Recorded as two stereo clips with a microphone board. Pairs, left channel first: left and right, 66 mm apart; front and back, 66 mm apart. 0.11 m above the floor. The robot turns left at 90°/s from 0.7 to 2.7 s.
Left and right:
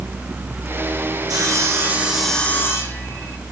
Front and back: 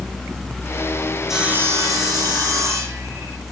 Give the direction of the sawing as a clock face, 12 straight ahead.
3 o'clock.